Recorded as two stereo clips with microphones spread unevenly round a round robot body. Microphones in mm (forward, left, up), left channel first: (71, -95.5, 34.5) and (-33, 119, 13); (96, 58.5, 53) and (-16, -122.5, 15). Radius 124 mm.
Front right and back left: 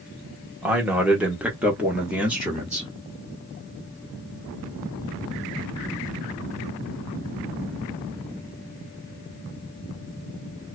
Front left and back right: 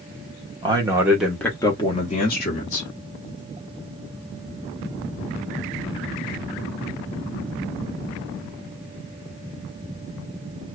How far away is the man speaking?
About 1.1 m.